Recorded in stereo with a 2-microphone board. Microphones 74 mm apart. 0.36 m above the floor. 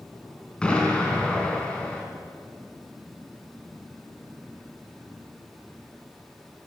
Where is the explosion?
15° left (ahead or behind), 2.5 m.